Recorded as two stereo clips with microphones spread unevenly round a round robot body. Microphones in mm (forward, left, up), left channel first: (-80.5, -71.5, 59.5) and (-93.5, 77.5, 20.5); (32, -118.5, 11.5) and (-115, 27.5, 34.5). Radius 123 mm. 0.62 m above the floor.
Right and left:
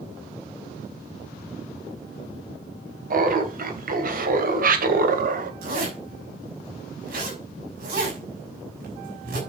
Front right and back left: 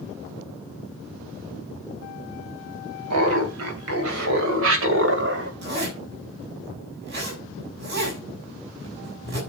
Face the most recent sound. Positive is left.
turn(degrees=85)